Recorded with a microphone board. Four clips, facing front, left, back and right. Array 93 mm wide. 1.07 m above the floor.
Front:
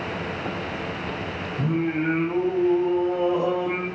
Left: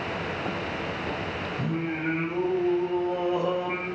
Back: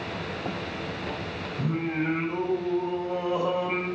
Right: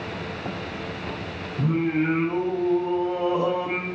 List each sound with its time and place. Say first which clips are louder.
1.6 s singing: right 9 dB, front 4 dB; 45° right, 8.5 m